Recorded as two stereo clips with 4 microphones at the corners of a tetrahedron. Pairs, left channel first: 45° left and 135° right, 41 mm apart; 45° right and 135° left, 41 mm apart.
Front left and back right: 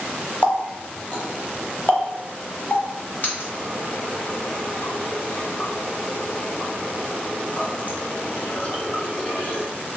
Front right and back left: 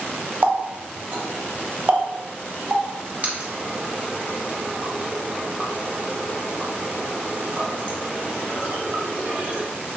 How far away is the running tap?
About 0.7 m.